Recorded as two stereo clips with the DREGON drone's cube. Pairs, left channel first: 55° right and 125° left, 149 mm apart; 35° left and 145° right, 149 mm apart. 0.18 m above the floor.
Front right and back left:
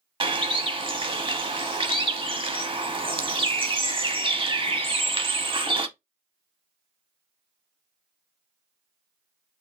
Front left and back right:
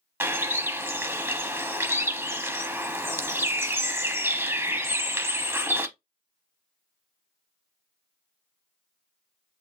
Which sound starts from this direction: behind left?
A bird, at 0.2 s.